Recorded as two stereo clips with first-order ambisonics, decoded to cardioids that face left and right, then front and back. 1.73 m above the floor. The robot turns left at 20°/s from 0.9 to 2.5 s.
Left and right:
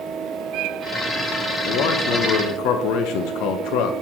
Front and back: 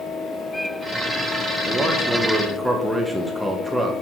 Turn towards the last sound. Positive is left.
turn(degrees=90)